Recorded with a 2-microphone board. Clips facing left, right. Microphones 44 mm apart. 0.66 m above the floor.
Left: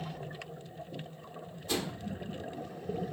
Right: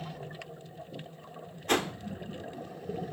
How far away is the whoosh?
About 1.3 m.